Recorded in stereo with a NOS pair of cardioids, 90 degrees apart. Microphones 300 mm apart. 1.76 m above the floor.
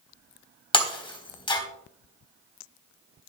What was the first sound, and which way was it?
Breaking glass, 15° left.